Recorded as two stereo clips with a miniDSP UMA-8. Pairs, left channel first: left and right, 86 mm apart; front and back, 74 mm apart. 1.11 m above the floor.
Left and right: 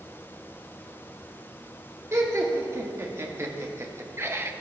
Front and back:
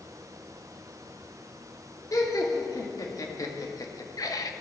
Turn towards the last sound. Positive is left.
turn(degrees=-30)